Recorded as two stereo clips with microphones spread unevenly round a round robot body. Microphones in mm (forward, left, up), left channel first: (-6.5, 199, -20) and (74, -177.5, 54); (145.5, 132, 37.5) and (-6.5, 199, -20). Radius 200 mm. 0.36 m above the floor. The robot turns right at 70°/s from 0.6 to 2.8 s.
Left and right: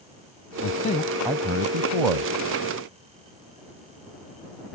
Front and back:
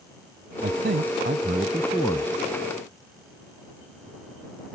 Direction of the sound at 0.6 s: 150° left.